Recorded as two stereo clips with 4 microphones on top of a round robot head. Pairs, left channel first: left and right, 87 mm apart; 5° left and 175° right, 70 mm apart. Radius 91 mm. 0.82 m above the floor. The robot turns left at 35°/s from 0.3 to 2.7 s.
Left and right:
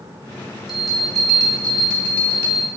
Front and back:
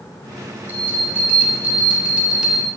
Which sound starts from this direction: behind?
A bell, at 0.7 s.